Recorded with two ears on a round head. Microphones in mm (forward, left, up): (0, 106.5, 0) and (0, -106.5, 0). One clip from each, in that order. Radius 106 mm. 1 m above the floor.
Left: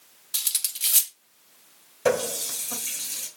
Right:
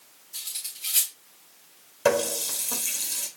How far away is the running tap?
About 1.3 m.